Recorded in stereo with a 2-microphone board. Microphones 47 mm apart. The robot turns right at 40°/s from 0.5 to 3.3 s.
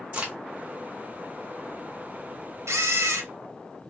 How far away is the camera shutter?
About 0.7 m.